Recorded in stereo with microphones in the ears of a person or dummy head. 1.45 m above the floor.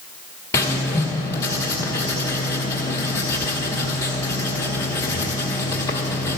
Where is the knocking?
I don't hear knocking.